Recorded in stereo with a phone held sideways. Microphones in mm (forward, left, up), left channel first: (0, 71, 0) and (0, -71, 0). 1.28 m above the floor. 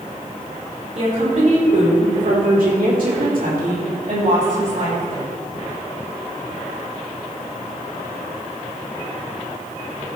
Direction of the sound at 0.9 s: 50° right (ahead or behind).